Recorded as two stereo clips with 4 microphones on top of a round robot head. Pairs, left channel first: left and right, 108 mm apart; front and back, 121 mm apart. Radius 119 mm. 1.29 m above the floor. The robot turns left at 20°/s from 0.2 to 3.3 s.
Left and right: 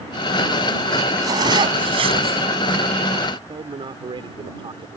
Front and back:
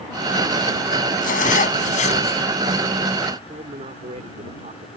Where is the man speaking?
135° right.